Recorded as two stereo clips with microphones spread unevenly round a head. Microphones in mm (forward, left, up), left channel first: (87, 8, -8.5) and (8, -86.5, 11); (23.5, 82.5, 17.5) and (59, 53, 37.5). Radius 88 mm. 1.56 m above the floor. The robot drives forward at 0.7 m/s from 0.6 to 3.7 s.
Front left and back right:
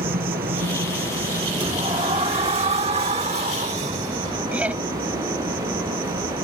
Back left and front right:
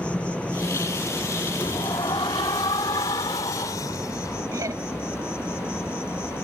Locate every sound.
0.0 s an insect: 150° right; by 6.4 s 165° right
1.6 s a sliding door: 170° right; by 4.4 s 175° right
4.5 s laughter: 55° right